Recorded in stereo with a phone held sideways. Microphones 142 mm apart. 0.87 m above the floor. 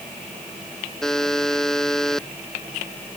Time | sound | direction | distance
1.0 | a buzzer | 5° left (ahead or behind) | ?